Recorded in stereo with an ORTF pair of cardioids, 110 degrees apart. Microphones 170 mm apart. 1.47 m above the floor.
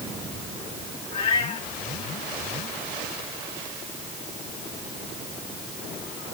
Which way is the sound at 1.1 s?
40° left.